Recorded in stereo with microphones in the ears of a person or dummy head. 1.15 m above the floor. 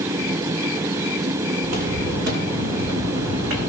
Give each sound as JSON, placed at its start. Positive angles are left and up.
{"t": 1.6, "sound": "footsteps", "side_deg": -65, "distance_m": 5.5}